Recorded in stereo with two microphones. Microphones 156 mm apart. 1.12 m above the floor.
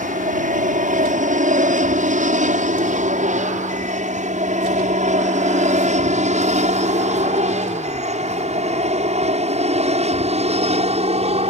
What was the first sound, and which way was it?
An aircraft, 55° right (ahead or behind).